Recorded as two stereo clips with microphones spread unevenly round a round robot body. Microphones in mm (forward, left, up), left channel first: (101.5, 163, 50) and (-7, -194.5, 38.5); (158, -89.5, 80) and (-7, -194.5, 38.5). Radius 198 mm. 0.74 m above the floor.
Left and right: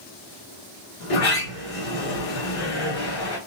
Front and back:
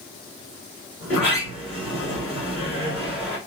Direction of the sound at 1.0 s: 125° left.